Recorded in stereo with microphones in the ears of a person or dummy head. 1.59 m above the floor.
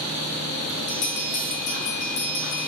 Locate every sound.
0.9 s a bell: 50° left (ahead or behind), 2 m